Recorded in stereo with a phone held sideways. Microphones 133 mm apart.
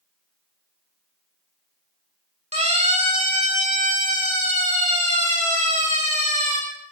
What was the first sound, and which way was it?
A siren, 55° right (ahead or behind).